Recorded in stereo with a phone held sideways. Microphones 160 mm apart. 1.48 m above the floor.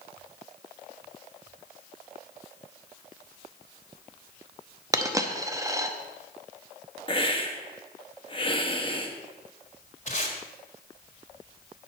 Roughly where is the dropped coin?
Centre.